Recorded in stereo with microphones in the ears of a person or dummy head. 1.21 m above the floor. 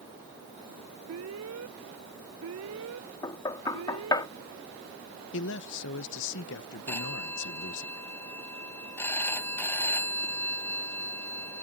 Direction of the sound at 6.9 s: 10° left (ahead or behind).